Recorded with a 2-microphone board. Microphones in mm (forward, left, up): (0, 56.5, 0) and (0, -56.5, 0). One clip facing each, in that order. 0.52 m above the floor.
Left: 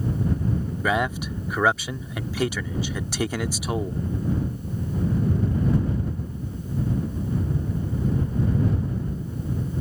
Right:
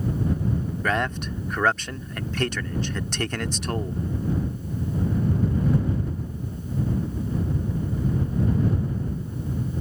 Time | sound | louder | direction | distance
0.8 | a man speaking | left 2 dB | 10° left (ahead or behind) | ?